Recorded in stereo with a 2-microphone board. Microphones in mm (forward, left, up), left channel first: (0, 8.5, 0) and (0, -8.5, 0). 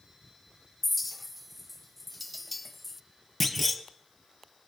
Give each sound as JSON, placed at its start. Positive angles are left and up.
{"t": 0.8, "sound": "a clink", "side_deg": 0, "distance_m": 0.6}
{"t": 3.4, "sound": "a clunk", "side_deg": 0, "distance_m": 1.2}